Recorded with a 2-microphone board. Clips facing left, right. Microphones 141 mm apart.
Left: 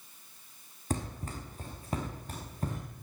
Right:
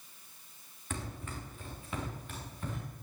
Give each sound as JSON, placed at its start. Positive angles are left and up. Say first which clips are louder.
{"t": 0.9, "sound": "running footsteps", "louder": "left 5 dB", "side_deg": 35, "distance_m": 2.5}